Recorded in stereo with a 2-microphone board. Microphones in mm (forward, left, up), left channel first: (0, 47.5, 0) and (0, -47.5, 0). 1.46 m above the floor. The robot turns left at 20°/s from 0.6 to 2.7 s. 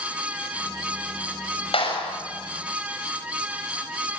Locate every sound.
1.7 s a clap: 80° left, 6 m; by 2.1 s 75° left (ahead or behind), 6 m